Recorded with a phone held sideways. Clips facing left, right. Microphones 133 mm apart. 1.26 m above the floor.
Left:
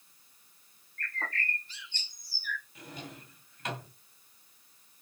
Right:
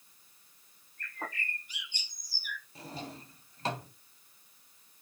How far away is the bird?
About 0.8 m.